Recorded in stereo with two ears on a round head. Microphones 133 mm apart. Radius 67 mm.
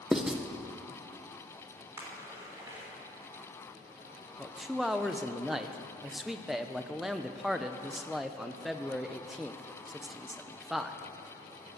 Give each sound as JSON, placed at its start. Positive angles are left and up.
{"t": 0.1, "sound": "writing", "side_deg": -5, "distance_m": 0.7}
{"t": 2.0, "sound": "a splash", "side_deg": -20, "distance_m": 3.5}
{"t": 4.4, "sound": "a man speaking", "side_deg": 0, "distance_m": 0.6}